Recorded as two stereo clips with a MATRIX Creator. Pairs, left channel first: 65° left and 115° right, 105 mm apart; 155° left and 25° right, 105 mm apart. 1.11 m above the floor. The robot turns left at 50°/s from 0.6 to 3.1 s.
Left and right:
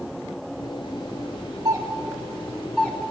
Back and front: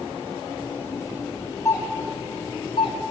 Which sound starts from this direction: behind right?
A doorbell, at 1.6 s.